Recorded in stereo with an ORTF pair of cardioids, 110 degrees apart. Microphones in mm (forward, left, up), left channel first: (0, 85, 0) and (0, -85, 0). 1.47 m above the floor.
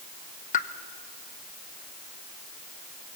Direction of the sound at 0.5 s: 50° left.